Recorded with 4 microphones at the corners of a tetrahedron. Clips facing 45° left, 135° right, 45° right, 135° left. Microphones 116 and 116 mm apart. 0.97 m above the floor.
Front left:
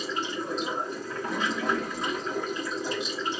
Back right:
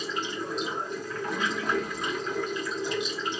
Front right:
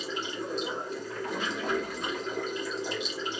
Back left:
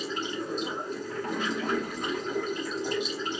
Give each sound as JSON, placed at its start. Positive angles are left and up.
{"t": 0.0, "sound": "running water", "azimuth_deg": 100, "distance_m": 1.4}